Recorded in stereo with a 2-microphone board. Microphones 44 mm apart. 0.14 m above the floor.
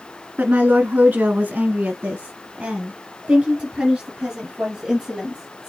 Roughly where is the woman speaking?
Right.